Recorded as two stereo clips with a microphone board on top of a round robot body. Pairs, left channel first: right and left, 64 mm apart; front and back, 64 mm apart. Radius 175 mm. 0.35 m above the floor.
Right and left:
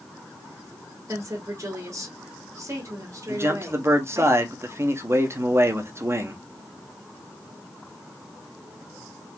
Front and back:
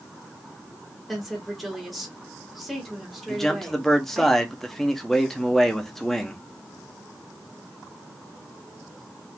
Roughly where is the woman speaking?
Left.